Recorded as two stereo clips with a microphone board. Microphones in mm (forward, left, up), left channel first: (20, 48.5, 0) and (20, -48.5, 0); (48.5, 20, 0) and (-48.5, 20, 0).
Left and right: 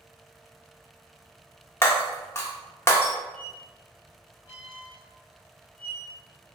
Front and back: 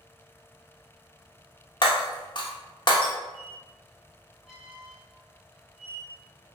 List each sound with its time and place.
1.8 s breaking glass: 30° left, 0.6 m
3.3 s a squeak: 85° right, 1.4 m